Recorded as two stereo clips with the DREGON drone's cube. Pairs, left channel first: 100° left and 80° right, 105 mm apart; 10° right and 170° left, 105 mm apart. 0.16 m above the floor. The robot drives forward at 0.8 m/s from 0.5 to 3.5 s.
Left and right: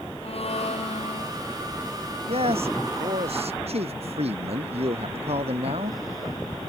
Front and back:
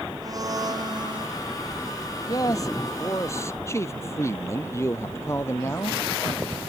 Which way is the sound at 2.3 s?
65° right.